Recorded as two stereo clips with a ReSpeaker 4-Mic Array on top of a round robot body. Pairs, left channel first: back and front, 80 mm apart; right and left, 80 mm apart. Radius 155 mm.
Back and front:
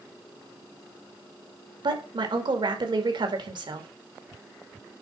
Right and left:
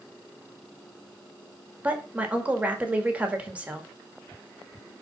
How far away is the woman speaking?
About 2 m.